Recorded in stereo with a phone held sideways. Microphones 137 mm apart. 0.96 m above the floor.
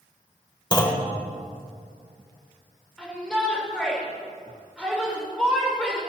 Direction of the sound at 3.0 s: 5° left (ahead or behind).